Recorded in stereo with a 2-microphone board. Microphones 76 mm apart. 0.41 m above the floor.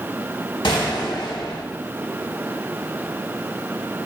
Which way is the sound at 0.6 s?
85° left.